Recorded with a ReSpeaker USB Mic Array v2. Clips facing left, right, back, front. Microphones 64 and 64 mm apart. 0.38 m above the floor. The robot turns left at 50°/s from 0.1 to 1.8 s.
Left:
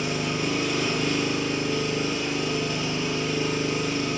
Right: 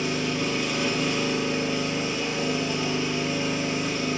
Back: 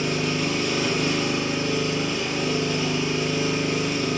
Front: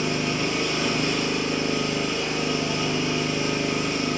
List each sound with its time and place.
0.0 s an engine running: 35° left, 1.1 m; by 4.2 s 50° right, 1.1 m